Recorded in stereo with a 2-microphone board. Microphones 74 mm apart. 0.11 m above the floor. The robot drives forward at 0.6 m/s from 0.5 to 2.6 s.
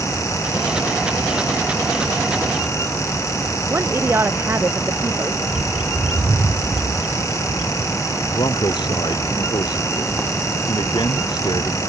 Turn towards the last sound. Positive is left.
turn(degrees=80)